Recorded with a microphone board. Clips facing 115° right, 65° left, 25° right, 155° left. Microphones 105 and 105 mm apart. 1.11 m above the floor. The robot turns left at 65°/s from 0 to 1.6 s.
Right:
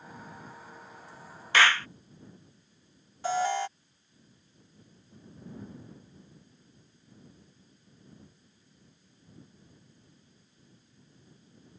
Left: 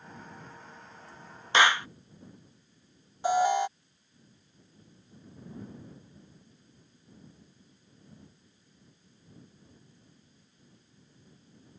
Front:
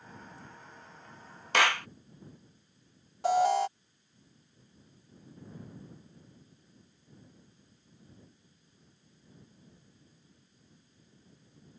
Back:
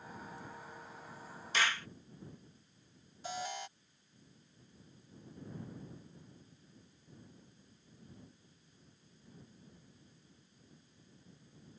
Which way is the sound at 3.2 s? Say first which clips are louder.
Left 4 dB, front 17 dB; 5° right.